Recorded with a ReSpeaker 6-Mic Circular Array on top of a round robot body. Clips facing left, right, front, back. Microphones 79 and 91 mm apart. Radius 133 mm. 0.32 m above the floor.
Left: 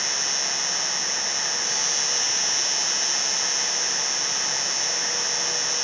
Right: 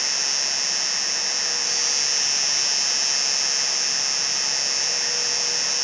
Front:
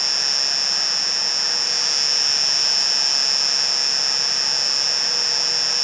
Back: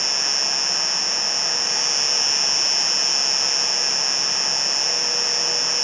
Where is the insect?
80° left.